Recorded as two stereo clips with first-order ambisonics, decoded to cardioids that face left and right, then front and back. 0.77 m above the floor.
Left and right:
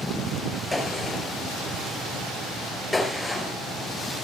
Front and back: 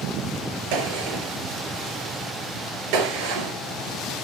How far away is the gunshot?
About 4 m.